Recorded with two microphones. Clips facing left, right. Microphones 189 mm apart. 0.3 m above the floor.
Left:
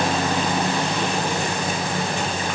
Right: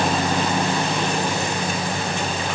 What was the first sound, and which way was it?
Only background noise.